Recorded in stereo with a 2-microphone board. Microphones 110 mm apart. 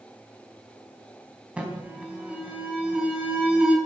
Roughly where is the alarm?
Centre.